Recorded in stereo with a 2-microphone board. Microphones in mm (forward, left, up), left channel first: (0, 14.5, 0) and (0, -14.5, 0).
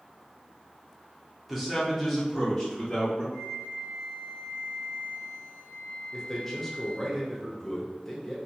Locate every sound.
1.5 s a man speaking: 5° right (ahead or behind), 0.9 m; by 3.2 s 10° left (ahead or behind), 1.2 m
3.3 s a flute: 20° left (ahead or behind), 1.0 m
6.1 s a man speaking: 10° left (ahead or behind), 0.7 m